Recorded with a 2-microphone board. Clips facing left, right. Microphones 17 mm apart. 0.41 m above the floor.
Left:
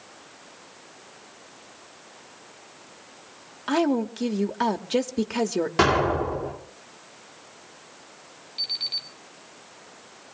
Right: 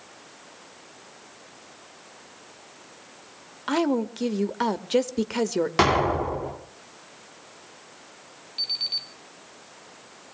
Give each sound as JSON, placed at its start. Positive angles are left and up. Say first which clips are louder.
{"t": 3.7, "sound": "a woman speaking", "louder": "left 1 dB", "side_deg": -10, "distance_m": 1.1}
{"t": 5.8, "sound": "an explosion", "louder": "left 1 dB", "side_deg": -20, "distance_m": 2.5}
{"t": 8.6, "sound": "an alarm clock", "louder": "right 1 dB", "side_deg": -5, "distance_m": 3.0}